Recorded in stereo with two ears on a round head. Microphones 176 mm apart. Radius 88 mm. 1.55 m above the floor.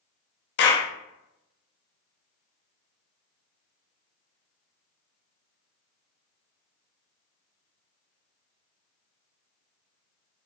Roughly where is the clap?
Left.